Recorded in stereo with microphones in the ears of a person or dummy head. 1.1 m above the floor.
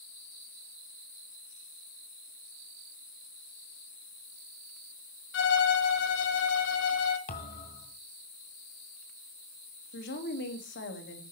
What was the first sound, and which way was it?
A violin, 60° left (ahead or behind).